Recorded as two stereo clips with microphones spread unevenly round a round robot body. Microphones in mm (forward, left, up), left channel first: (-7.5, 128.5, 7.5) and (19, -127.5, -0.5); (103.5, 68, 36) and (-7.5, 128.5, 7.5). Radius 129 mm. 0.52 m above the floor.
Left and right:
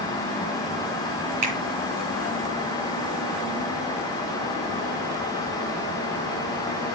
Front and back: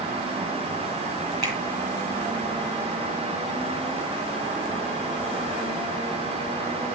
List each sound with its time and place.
1.4 s a finger snap: 105° right, 6 m